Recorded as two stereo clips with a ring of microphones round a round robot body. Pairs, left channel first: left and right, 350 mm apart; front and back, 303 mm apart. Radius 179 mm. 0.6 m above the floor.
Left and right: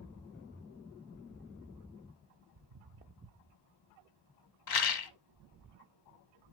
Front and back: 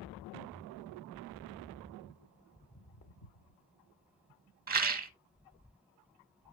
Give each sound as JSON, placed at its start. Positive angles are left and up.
{"t": 2.5, "sound": "footsteps", "azimuth_deg": -110, "distance_m": 0.8}
{"t": 4.7, "sound": "a rattle", "azimuth_deg": 120, "distance_m": 0.9}